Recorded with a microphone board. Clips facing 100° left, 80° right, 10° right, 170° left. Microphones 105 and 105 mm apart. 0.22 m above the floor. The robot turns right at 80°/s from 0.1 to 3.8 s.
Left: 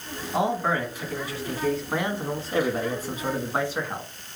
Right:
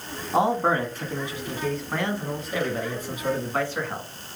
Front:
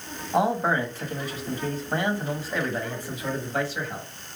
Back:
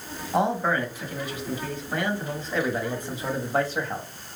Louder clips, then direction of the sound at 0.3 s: Right 3 dB, front 1 dB; 105° right.